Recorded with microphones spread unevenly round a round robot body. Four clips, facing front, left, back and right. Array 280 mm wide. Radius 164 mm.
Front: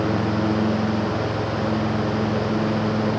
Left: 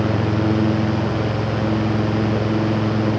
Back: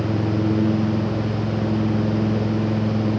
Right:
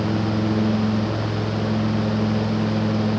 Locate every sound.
Only background noise.